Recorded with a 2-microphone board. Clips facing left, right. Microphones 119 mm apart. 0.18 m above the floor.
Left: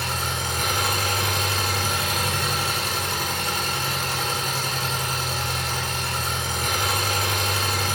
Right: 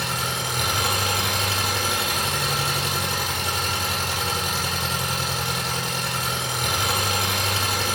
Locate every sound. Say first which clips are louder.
0.0 s an engine running: even; 10° right (ahead or behind), 2.5 m